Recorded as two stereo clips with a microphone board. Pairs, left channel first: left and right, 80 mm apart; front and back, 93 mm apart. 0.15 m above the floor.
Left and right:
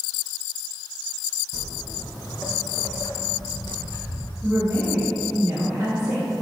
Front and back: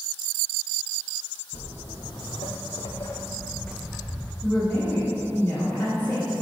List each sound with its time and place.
1.5 s footsteps: 5° left, 1.1 m; by 4.3 s 110° left, 0.6 m
4.4 s a woman speaking: 25° right, 1.1 m